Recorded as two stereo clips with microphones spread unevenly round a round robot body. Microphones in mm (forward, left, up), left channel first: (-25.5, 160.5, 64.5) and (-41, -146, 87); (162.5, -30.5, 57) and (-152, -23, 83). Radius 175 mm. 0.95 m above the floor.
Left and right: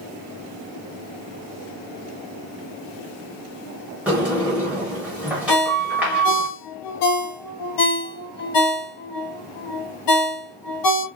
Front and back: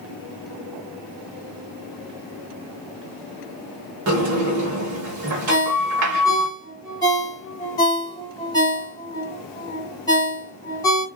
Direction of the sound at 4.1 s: 175° right.